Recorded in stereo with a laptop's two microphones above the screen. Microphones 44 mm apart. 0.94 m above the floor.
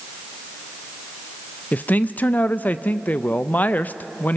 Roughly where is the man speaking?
Left.